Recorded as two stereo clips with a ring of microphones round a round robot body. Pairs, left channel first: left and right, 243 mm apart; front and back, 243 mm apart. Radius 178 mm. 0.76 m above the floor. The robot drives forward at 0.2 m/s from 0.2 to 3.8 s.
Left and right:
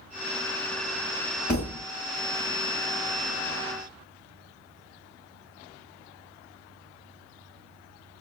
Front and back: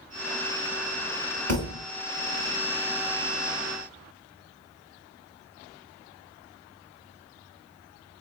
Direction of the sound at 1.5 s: 175° left.